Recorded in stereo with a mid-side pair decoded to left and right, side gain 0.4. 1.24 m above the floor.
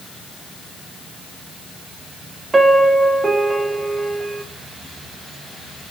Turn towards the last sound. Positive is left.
turn(degrees=-25)